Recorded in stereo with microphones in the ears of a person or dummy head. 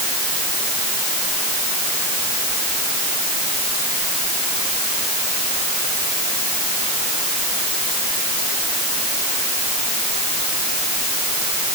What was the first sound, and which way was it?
Only background noise.